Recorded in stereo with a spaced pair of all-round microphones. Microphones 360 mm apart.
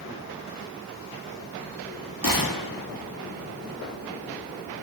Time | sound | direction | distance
2.2 | a gunshot | 65° left (ahead or behind) | 1.7 m